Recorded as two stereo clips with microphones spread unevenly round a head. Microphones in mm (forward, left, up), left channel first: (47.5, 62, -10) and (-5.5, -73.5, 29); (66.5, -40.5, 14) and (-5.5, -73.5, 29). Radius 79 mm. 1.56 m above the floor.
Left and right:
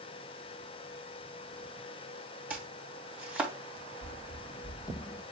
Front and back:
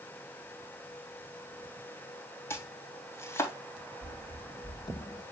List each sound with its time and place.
2.5 s chopping: 35° right, 3 m
4.0 s running footsteps: 5° left, 2.5 m; by 5.2 s 5° right, 2 m